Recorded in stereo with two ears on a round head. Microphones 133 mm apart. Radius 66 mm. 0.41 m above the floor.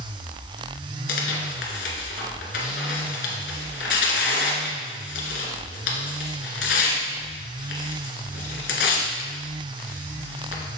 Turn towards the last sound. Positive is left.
turn(degrees=90)